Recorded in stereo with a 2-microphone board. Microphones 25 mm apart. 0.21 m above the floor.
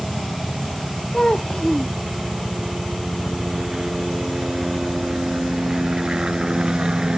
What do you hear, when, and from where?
0.0 s a helicopter: 5° right (ahead or behind); by 7.2 s 35° right (ahead or behind)
1.1 s a child speaking: 30° left (ahead or behind)